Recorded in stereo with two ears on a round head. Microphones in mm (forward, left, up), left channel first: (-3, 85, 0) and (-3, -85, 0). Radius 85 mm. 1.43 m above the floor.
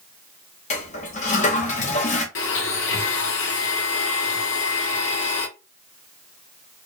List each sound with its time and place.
0.7 s a toilet flushing: 40° left (ahead or behind), 0.8 m
2.4 s a blender: 70° left (ahead or behind), 0.8 m